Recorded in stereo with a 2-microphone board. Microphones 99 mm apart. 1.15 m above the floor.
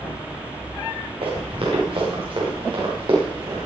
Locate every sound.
1.2 s running footsteps: 65° right (ahead or behind), 7 m; by 3.6 s 50° right (ahead or behind), 8.5 m